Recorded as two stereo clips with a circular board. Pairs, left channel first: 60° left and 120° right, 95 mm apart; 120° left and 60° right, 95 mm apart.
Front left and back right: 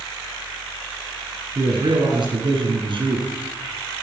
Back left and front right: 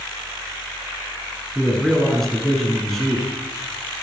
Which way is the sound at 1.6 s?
150° right.